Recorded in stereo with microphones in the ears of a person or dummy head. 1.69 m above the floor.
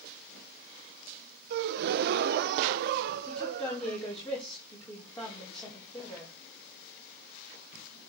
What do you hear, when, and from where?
1.5 s a gasp: 60° right (ahead or behind), 0.5 m
3.3 s a woman speaking: 5° left (ahead or behind), 6 m